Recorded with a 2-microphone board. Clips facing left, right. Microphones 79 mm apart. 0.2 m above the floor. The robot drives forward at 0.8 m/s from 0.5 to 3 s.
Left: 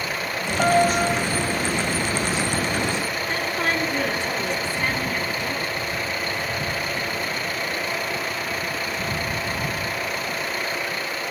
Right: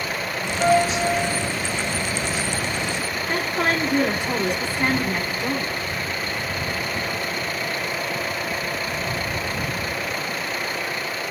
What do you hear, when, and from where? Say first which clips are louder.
0.6 s a piano: even; 75° left (ahead or behind), 8 m; by 1.5 s 80° left, 8 m
3.3 s a woman speaking: right 3 dB; 15° right (ahead or behind), 1.4 m